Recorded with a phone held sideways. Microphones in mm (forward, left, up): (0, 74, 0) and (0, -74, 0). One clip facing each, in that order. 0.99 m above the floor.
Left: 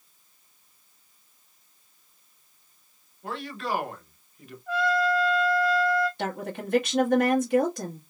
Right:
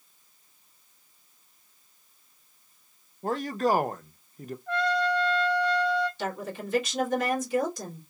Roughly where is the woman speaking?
Left.